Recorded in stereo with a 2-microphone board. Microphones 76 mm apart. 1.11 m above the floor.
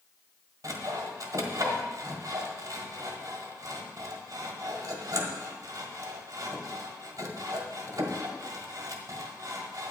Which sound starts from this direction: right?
Sawing, at 0.6 s.